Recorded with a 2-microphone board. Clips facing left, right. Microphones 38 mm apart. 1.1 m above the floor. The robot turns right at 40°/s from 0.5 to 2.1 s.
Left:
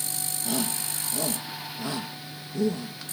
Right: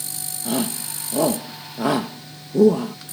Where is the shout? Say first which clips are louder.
Right 6 dB; 30° right (ahead or behind); by 3.0 s 75° right (ahead or behind).